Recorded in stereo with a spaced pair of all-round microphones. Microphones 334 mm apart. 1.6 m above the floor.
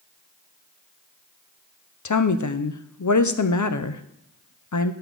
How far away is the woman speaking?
About 0.6 m.